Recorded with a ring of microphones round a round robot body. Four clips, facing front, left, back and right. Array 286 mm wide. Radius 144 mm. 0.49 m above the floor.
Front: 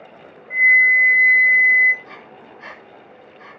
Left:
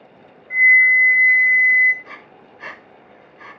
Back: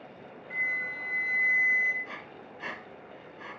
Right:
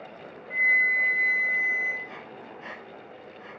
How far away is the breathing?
About 0.7 m.